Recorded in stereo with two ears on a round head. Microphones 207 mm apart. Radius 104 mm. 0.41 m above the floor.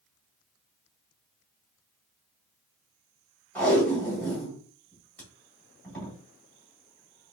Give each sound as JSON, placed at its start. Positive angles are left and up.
{"t": 3.5, "sound": "tape being pulled", "side_deg": 5, "distance_m": 2.5}